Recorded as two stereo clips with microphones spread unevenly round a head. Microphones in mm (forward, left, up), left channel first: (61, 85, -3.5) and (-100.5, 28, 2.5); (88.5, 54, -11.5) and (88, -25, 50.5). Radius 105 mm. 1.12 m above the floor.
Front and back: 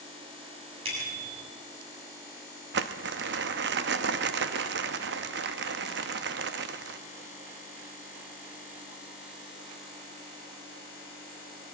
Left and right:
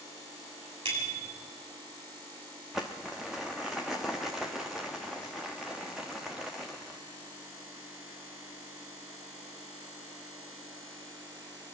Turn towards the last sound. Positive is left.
turn(degrees=-155)